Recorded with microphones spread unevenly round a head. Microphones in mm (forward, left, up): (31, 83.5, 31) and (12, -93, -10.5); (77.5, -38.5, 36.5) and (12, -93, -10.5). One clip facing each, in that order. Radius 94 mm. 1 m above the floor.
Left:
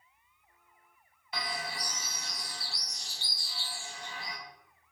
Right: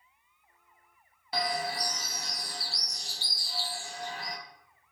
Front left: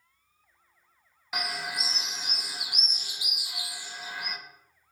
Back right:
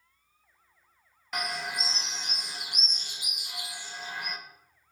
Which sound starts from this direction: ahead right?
A bird, at 1.3 s.